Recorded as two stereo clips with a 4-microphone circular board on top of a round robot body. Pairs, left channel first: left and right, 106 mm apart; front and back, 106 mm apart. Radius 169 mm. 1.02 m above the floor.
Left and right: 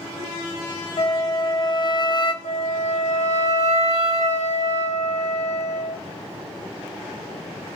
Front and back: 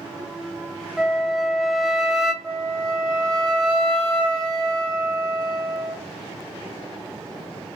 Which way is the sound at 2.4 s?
100° left.